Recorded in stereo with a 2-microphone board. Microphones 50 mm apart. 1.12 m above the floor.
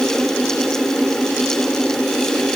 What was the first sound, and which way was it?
Only background noise.